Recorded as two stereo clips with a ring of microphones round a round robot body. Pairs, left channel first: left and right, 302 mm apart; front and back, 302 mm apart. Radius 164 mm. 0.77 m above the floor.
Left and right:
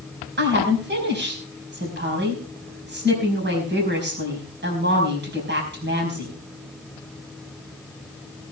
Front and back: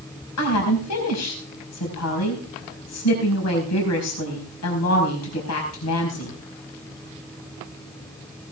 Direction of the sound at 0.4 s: 35° right.